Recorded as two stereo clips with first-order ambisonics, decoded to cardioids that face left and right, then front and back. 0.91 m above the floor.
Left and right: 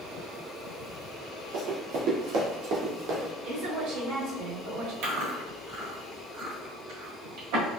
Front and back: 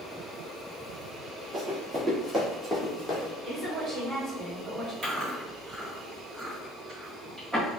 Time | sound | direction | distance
1.5 | running footsteps | 110° right | 1.6 m
3.4 | a woman speaking | 95° right | 2.0 m
5.0 | chewing | 105° right | 1.6 m